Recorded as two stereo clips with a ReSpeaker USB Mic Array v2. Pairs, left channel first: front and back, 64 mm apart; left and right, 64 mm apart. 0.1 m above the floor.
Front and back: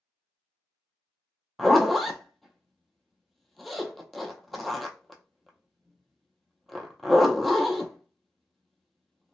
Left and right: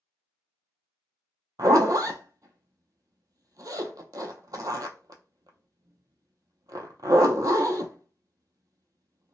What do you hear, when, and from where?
1.6 s a zipper: 90° right, 0.5 m